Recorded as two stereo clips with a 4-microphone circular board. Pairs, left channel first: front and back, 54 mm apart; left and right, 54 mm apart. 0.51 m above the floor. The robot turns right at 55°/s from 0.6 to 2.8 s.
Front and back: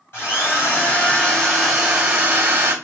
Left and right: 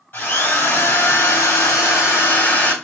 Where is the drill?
40° left, 3 m; by 2.7 s 155° left, 3 m.